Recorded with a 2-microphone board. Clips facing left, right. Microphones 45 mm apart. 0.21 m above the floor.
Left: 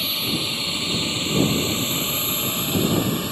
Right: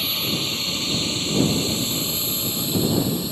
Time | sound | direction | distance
0.0 | a drone | 5° left (ahead or behind) | ?